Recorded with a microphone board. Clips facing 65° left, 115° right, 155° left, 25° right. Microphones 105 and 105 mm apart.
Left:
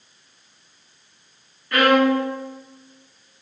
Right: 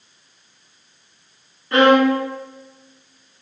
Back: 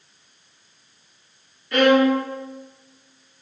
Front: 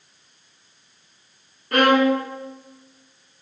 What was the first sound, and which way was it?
A violin, 50° right.